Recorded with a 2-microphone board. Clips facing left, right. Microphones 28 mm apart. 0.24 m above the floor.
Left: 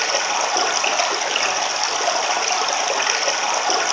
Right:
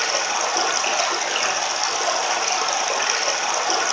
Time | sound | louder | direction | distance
0.0 | running water | left 2 dB | 20° left (ahead or behind) | 1.0 m